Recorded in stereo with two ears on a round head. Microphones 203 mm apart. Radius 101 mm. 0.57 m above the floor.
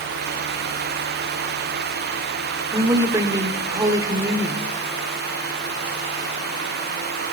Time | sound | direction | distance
2.7 | a woman speaking | 15° right (ahead or behind) | 1.8 m